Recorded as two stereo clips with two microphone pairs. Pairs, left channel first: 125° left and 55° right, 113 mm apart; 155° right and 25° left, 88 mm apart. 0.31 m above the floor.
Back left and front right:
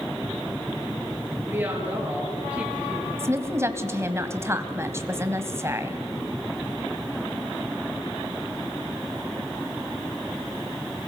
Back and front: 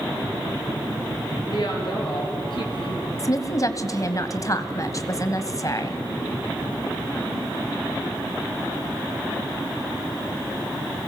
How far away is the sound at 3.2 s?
About 1.5 m.